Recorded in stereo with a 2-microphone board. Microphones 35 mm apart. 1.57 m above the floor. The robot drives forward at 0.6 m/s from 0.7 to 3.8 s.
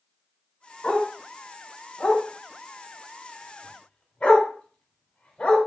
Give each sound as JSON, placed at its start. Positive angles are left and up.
{"t": 0.8, "sound": "a dog barking", "side_deg": 30, "distance_m": 1.6}